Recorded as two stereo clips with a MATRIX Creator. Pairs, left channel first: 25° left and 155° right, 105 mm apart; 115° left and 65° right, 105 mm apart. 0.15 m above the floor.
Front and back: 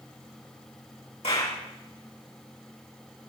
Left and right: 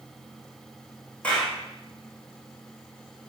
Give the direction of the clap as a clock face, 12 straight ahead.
11 o'clock.